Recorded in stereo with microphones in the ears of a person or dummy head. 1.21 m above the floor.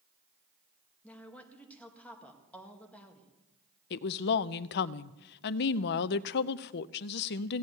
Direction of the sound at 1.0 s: 10° left (ahead or behind).